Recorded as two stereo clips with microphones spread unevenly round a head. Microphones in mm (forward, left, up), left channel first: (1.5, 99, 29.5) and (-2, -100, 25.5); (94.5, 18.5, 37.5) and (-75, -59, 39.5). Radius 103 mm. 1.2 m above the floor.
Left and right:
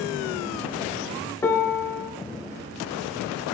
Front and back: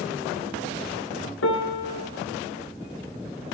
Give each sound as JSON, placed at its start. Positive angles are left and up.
{"t": 1.4, "sound": "a piano", "azimuth_deg": 10, "distance_m": 1.5}